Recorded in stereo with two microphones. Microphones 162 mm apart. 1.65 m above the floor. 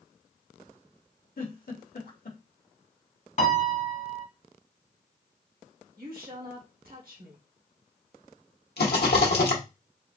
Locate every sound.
1.4 s a giggle: 65° left (ahead or behind), 1.0 m
3.4 s a piano: 50° left (ahead or behind), 1.1 m
6.0 s a woman speaking: 65° right (ahead or behind), 1.2 m
8.8 s a rattle: 85° left, 1.0 m